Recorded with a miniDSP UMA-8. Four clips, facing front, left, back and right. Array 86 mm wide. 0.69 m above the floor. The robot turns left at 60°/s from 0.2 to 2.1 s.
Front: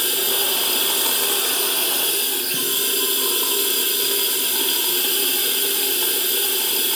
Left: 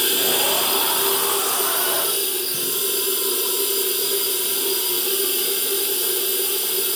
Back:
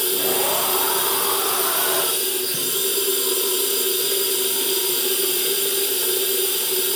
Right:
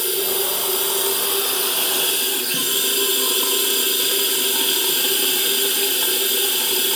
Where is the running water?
60° left, 1.2 m; by 7.0 s 50° right, 1.2 m.